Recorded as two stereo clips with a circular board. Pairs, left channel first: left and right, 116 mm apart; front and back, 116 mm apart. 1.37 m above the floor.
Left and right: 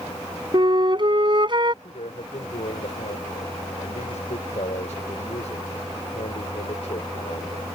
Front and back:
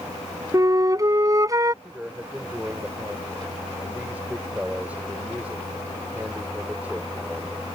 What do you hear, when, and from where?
0.5 s a flute: 125° right
1.8 s a man speaking: 105° left